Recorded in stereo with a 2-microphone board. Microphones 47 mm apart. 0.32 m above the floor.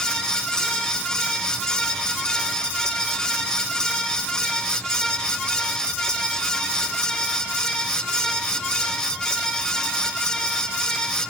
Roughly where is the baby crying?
No baby crying in this recording.